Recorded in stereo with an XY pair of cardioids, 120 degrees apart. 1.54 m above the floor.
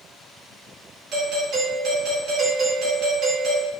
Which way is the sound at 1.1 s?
60° right.